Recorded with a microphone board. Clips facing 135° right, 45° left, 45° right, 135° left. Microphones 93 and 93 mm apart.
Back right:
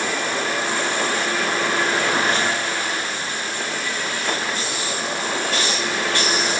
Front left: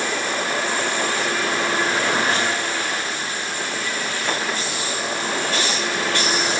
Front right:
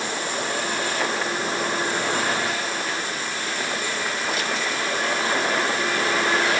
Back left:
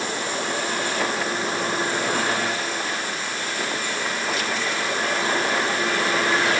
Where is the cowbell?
I don't hear a cowbell.